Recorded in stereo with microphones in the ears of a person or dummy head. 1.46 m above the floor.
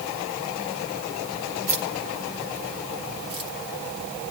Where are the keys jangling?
40° right (ahead or behind), 3 m; by 3.5 s 35° right (ahead or behind), 2.0 m.